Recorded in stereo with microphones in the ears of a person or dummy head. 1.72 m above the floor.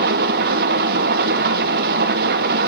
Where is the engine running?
45° right (ahead or behind), 0.9 m.